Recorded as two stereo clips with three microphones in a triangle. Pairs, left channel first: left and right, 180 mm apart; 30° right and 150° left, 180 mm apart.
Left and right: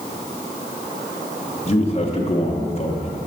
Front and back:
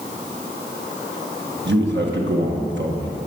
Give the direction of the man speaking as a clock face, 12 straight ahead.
7 o'clock.